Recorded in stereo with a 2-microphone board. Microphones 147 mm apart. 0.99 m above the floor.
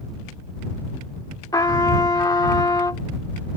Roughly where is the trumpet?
Left.